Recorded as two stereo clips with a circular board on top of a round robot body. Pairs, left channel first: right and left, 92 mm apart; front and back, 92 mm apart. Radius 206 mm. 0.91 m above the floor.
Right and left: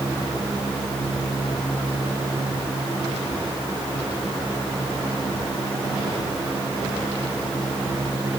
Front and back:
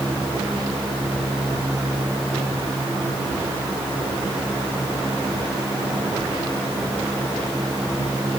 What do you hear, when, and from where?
Only background noise.